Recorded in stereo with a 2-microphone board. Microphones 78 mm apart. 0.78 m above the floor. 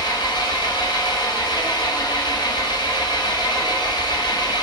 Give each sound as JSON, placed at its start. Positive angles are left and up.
{"t": 0.0, "sound": "an engine running", "side_deg": 65, "distance_m": 1.0}